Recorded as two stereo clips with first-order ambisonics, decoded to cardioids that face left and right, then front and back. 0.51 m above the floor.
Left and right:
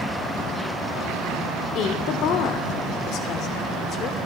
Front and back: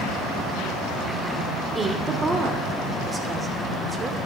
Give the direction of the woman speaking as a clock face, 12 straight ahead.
8 o'clock.